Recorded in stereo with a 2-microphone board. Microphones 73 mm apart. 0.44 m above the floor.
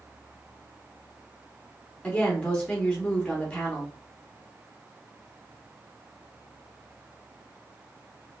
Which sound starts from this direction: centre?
A woman speaking, at 2.0 s.